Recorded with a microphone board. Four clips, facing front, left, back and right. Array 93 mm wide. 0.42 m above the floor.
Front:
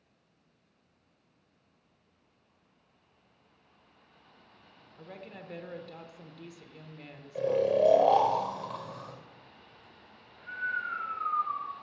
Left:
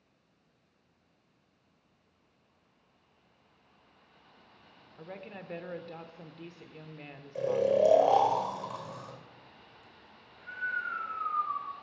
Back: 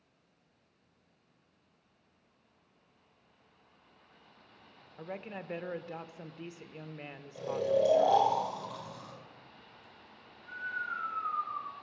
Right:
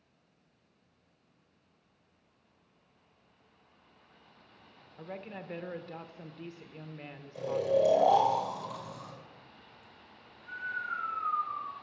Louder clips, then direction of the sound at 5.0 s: Right 2 dB, back 4 dB; straight behind.